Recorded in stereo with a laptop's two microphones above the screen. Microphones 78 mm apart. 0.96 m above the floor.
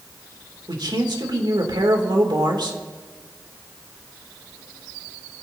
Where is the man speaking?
80° right, 3 m.